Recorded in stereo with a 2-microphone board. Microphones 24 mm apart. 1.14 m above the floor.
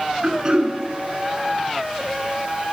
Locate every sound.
0.2 s throat clearing: 30° right (ahead or behind), 6.5 m